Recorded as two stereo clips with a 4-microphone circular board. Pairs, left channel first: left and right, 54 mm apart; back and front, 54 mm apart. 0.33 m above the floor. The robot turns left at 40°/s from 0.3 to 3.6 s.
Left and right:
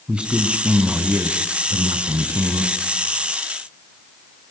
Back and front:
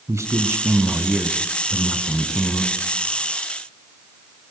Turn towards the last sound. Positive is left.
turn(degrees=-150)